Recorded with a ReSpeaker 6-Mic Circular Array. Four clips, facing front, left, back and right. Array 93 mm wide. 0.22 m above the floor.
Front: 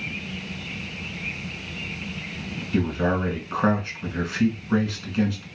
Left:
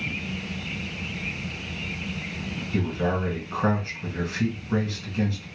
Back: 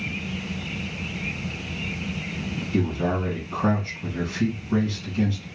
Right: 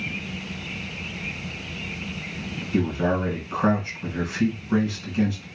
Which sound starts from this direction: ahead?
A man speaking, at 2.7 s.